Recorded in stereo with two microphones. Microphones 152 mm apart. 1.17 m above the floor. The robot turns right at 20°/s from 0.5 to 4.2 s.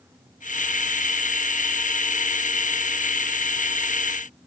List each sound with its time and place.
Only background noise.